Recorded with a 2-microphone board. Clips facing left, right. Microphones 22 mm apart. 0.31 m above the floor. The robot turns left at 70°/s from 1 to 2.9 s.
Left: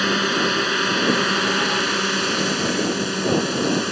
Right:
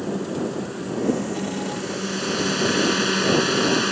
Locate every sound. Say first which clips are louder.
0.0 s a drone: left 7 dB; 65° left (ahead or behind); by 3.9 s 10° right (ahead or behind)